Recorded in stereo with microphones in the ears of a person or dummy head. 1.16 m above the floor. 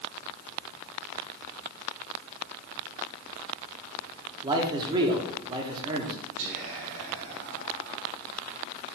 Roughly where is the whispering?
Right.